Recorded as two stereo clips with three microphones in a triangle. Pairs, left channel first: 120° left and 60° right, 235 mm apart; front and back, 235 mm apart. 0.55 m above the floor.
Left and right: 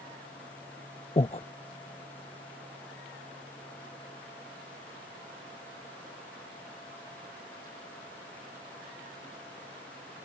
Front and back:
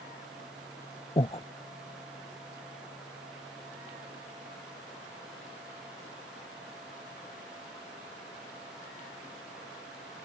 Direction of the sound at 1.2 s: 55° left.